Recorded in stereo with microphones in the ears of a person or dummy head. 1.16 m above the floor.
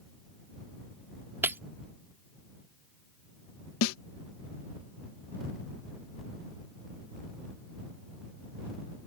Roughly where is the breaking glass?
Centre.